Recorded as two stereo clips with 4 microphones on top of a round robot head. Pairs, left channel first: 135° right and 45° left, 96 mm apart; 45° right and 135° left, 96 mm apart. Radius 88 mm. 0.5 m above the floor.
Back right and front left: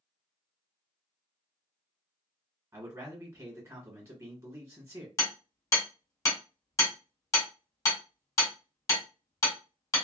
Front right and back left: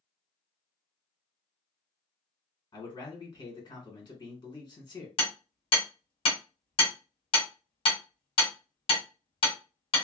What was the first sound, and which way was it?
A man speaking, 15° right.